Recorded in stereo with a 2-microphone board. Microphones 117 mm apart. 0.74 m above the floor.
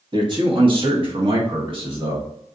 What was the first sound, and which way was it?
A man speaking, 40° right (ahead or behind).